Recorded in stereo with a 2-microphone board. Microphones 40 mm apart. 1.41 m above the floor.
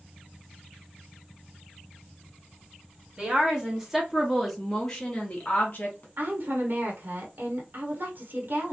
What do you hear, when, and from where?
3.2 s a woman speaking: 20° right (ahead or behind), 1.5 m; by 6.1 s 45° left (ahead or behind), 1.2 m
6.2 s a woman speaking: 55° right (ahead or behind), 1.1 m